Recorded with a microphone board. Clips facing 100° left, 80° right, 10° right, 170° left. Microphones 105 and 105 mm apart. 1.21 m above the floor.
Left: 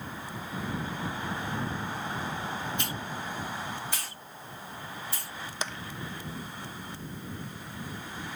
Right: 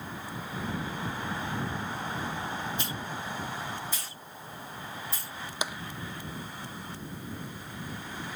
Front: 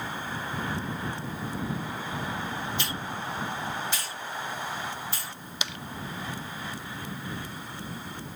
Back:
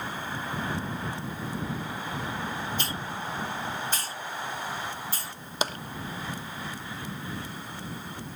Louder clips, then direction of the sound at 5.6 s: Right 2 dB, back 8 dB; 155° right.